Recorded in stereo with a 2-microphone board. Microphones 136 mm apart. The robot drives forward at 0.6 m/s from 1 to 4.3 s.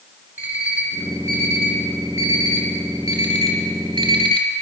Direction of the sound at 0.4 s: 15° right (ahead or behind).